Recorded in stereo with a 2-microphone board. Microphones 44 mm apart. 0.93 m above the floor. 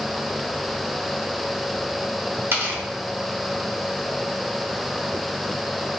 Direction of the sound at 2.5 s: 75° right (ahead or behind).